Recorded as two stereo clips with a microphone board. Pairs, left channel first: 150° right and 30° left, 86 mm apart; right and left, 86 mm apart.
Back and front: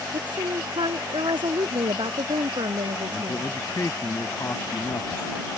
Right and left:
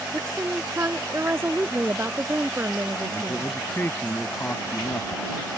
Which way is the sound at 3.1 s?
140° right.